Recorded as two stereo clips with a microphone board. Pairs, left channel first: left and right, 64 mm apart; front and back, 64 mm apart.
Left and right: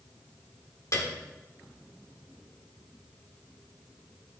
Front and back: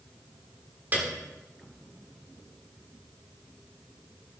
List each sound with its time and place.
0.9 s a piano: 125° left, 1.6 m